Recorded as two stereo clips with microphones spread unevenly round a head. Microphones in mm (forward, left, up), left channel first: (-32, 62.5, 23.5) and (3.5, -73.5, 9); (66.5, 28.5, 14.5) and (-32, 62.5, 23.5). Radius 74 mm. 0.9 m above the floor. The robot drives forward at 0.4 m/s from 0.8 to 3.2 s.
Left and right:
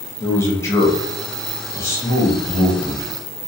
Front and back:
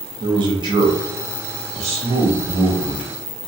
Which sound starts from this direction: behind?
A man speaking, at 0.2 s.